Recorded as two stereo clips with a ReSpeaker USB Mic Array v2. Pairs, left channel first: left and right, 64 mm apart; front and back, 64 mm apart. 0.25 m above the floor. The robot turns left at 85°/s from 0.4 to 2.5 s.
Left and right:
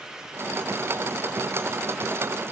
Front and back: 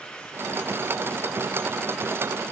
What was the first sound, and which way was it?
Only background noise.